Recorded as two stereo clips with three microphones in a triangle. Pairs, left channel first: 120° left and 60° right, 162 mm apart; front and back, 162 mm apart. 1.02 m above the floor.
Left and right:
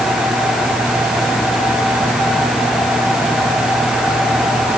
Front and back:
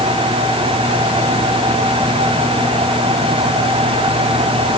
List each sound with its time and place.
Only background noise.